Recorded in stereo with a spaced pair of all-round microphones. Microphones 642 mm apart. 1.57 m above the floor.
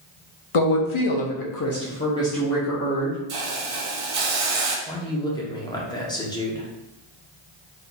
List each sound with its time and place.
0.5 s a woman speaking: 55° left (ahead or behind), 0.7 m; by 3.2 s 10° right (ahead or behind), 1.0 m
3.3 s a hiss: 60° right (ahead or behind), 0.6 m
4.9 s a man speaking: 5° left (ahead or behind), 0.8 m